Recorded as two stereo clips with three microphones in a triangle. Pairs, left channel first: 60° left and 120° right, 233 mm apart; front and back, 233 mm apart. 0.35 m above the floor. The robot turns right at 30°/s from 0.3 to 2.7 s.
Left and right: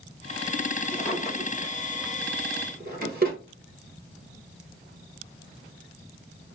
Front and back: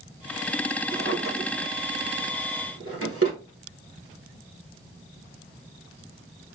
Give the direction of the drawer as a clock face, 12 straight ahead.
7 o'clock.